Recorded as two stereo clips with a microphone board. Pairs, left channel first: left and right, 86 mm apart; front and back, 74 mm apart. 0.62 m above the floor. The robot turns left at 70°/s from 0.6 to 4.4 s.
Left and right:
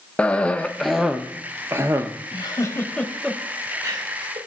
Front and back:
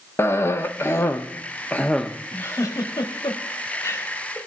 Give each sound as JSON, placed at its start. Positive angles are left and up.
{"t": 0.2, "sound": "a cough", "azimuth_deg": 25, "distance_m": 0.7}
{"t": 2.3, "sound": "a giggle", "azimuth_deg": 65, "distance_m": 0.9}